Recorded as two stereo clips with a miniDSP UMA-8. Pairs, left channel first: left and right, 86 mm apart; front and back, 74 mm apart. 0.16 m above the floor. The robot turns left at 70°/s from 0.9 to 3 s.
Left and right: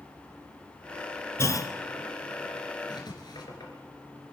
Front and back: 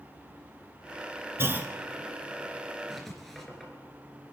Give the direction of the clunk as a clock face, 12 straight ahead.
7 o'clock.